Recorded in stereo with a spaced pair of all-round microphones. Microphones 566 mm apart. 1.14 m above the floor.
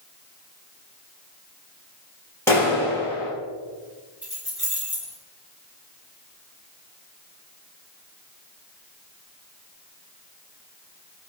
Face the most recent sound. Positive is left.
turn(degrees=-20)  # may be behind; listen again after turning